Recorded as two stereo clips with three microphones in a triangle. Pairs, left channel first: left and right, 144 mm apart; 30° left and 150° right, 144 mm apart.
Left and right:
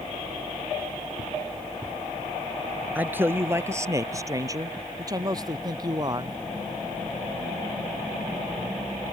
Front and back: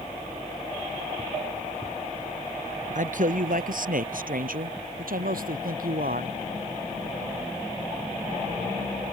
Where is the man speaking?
170° right; by 6.4 s 150° right.